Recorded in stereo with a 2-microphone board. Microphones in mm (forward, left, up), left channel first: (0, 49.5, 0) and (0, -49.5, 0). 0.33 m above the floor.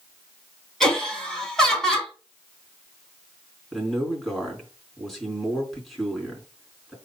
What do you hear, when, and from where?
0.8 s laughter: 5° left (ahead or behind), 3.5 m
3.7 s a man speaking: centre (ahead or behind), 3.5 m